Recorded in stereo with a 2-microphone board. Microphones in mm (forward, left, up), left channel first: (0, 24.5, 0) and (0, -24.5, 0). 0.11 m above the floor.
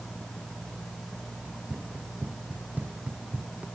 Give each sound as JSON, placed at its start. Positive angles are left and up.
{"t": 1.4, "sound": "running footsteps", "side_deg": -35}